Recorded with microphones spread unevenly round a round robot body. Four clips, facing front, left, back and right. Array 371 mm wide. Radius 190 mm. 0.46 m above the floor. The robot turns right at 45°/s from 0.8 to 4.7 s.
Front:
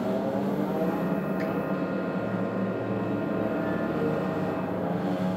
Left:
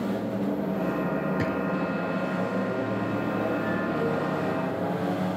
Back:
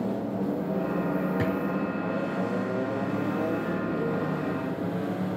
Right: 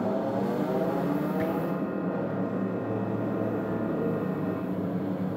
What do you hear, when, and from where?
1.4 s a drawer: 150° left, 4 m; by 1.6 s 160° left, 4 m